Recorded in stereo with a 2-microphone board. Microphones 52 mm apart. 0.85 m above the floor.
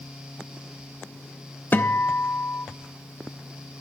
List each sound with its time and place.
1.7 s a guitar: 40° left (ahead or behind), 0.6 m